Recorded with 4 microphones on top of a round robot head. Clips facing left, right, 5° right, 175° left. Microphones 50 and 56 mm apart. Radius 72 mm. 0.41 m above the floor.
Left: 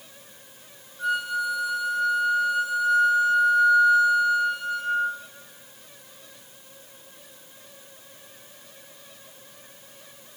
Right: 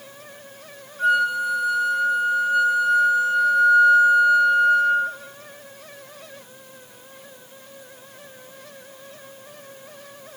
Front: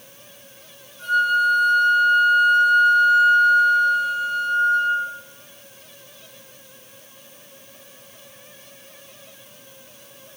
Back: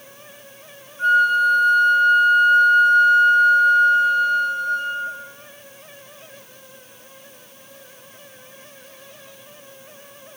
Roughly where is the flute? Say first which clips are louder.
Right 6 dB, back 3 dB; behind right.